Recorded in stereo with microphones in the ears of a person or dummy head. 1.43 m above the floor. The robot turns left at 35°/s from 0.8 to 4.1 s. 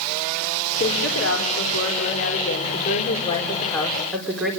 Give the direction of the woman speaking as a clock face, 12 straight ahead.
8 o'clock.